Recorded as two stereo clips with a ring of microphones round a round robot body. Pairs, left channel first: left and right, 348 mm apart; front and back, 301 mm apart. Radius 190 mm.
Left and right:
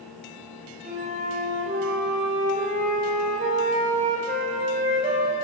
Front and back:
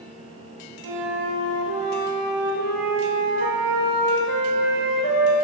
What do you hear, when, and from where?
0.8 s a flute: 160° right, 2 m